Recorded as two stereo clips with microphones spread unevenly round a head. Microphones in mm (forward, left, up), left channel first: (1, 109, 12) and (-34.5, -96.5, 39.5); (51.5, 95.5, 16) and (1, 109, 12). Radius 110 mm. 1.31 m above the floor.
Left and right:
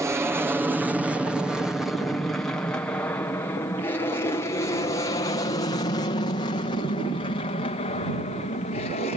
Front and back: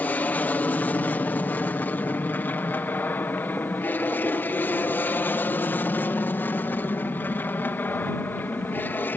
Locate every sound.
0.0 s an aircraft: 20° right; by 9.2 s 30° left